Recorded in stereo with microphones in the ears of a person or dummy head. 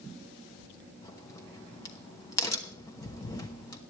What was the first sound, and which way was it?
A crack, 15° left (ahead or behind).